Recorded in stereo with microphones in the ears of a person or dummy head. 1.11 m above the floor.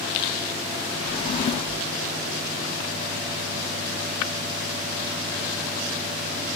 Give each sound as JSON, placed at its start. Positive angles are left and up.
{"t": 1.1, "sound": "a drawer", "side_deg": 35}